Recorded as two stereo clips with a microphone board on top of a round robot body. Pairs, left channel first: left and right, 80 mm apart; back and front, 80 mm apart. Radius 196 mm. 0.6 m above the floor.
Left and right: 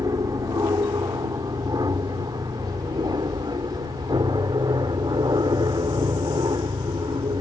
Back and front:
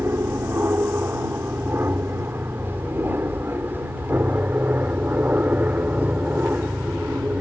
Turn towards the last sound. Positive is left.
turn(degrees=-70)